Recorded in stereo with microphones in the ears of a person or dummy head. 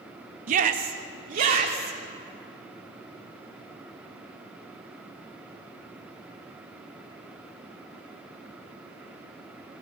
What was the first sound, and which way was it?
A shout, 50° right (ahead or behind).